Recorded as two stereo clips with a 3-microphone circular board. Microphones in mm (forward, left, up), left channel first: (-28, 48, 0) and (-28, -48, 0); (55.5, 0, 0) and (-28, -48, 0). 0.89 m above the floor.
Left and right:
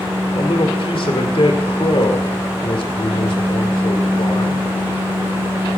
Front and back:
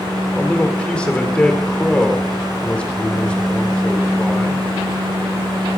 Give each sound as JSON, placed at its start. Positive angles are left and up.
{"t": 0.3, "sound": "a man speaking", "azimuth_deg": 110, "distance_m": 2.5}